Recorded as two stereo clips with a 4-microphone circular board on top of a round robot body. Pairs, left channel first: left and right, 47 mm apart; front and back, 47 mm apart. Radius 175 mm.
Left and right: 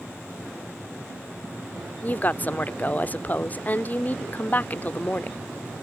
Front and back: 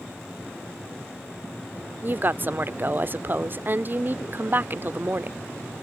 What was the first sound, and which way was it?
A woman speaking, 140° left.